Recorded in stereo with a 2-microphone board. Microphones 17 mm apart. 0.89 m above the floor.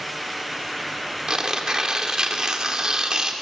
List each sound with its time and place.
1.3 s tearing paper: 45° right (ahead or behind), 2 m